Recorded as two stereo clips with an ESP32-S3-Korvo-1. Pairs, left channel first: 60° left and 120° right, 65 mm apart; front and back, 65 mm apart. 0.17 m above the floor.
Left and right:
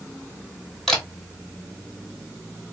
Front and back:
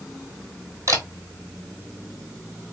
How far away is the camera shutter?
About 1.4 m.